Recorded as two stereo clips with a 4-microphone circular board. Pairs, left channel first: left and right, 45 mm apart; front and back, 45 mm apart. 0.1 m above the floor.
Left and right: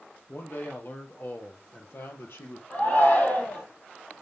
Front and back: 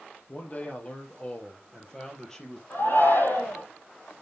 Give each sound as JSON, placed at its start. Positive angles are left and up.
{"t": 0.3, "sound": "a man speaking", "azimuth_deg": 50, "distance_m": 2.5}
{"t": 2.7, "sound": "a shout", "azimuth_deg": 40, "distance_m": 4.0}